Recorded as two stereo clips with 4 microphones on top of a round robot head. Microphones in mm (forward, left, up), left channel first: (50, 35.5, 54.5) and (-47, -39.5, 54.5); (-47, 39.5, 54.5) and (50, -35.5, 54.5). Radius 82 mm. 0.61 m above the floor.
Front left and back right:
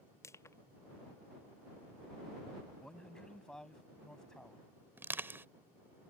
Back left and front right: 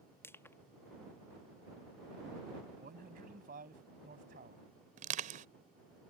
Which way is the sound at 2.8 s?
45° right.